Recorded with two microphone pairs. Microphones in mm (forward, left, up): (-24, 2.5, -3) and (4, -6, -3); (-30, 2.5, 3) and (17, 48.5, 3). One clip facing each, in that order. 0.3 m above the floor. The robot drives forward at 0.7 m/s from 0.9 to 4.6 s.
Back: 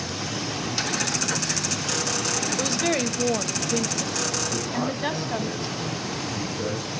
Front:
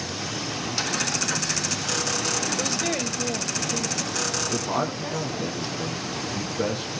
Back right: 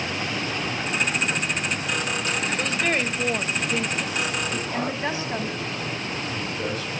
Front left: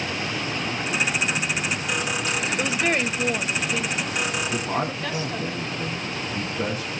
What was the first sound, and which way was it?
A woman speaking, 95° left.